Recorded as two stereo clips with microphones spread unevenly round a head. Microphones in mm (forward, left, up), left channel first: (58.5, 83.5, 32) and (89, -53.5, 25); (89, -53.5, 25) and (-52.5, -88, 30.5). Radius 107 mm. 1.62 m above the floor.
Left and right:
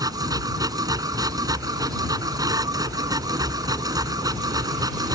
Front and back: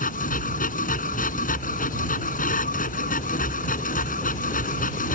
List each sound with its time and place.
0.0 s a machine running: 15° right